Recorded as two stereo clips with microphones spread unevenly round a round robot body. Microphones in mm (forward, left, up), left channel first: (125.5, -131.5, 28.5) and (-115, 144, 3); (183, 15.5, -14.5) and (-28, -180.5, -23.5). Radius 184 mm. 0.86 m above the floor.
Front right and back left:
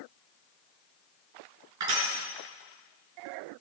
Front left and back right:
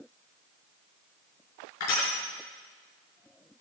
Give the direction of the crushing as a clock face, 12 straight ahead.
9 o'clock.